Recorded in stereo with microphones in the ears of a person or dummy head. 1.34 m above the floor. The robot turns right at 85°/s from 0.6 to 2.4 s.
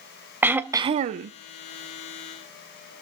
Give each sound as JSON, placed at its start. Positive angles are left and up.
{"t": 0.4, "sound": "throat clearing", "azimuth_deg": -170, "distance_m": 0.5}